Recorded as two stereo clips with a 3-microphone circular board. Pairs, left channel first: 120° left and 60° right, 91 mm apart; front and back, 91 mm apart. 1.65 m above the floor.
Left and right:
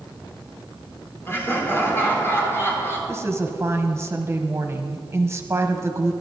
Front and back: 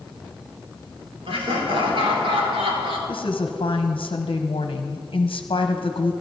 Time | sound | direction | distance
1.3 | laughter | straight behind | 4 m
3.1 | a woman speaking | 5° right | 1.0 m